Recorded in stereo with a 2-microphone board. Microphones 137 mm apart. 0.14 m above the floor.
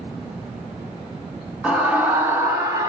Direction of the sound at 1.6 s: 10° right (ahead or behind).